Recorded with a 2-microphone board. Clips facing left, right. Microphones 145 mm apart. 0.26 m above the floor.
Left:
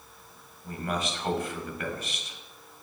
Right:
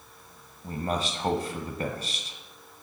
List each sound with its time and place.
0.6 s a man speaking: 35° right (ahead or behind), 1.1 m